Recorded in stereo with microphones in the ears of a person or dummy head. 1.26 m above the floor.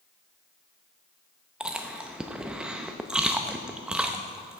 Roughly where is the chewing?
Centre.